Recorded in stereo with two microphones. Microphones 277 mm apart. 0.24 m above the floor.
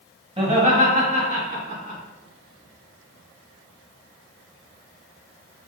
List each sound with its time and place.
0.4 s laughter: 20° right (ahead or behind), 1.1 m; by 2.0 s 30° right (ahead or behind), 2.5 m